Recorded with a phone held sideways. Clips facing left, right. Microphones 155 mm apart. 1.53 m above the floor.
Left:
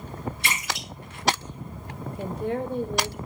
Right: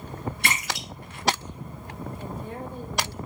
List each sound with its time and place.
0.4 s a splash: 60° right (ahead or behind), 3.5 m
2.2 s a woman speaking: 70° left (ahead or behind), 0.9 m